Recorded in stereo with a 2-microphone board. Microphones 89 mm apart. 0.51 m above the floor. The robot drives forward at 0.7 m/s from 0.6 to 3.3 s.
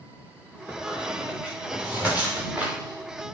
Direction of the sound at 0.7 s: 15° right (ahead or behind).